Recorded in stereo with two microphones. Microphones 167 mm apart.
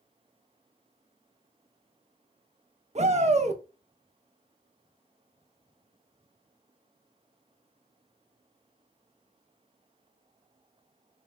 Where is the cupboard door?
I don't hear a cupboard door.